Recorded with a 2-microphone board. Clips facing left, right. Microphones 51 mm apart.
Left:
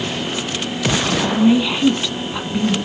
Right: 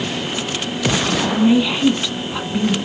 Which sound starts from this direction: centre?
A woman speaking, at 1.2 s.